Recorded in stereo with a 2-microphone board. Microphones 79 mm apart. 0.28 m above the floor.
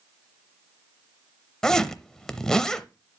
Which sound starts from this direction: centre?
A zipper, at 1.6 s.